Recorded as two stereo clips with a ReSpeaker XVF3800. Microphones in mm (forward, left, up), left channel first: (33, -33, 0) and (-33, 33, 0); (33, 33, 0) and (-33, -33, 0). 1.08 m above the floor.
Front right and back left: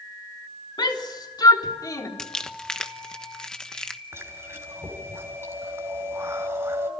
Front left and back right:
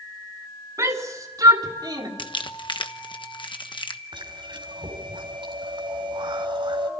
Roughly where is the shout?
Right.